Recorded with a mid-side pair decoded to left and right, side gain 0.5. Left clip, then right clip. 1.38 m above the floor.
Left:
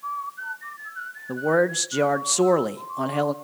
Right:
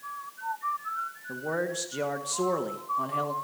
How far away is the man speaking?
About 1.6 m.